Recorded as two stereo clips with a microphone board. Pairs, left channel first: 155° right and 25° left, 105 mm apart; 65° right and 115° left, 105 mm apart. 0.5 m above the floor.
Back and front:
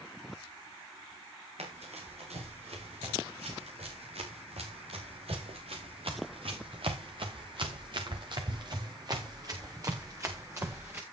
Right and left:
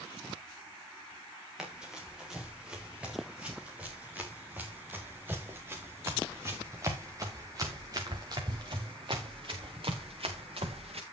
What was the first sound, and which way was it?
Running footsteps, 30° left.